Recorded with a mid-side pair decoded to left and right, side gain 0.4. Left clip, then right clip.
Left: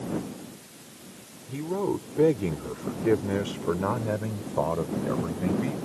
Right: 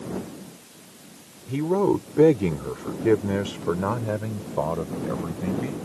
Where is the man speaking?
60° right; by 5.8 s 5° left.